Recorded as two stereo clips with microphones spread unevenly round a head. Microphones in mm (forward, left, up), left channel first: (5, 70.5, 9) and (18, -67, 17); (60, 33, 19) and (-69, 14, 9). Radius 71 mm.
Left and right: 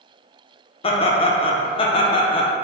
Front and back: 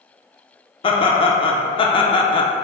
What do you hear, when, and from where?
0.8 s laughter: 55° left, 0.6 m